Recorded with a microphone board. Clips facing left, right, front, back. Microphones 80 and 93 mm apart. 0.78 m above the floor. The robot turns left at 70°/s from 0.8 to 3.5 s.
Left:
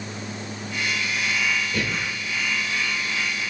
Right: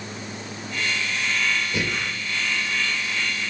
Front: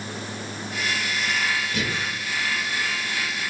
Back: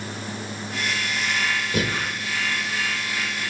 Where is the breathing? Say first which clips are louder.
Even, back 3 dB; 160° right, 1.1 m; by 2.1 s 175° left, 1.1 m.